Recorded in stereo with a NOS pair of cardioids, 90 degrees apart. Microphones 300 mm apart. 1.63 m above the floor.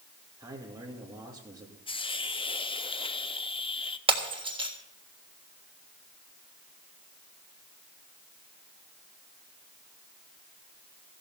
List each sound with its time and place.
0.4 s a man speaking: 10° right, 2.5 m
1.9 s a hiss: 15° left, 0.7 m
4.1 s breaking glass: 20° right, 3.5 m